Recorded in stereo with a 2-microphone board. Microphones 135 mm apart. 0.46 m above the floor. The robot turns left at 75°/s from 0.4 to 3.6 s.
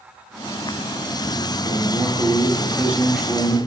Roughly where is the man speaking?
Centre.